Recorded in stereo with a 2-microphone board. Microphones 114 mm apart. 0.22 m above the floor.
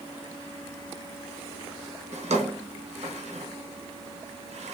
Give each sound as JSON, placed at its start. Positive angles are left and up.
{"t": 2.1, "sound": "a drawer", "side_deg": -75, "distance_m": 0.8}